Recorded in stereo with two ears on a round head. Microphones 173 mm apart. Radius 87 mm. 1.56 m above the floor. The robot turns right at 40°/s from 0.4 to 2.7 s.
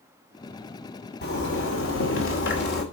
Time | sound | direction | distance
1.2 | a zipper | 60° left | 2.5 m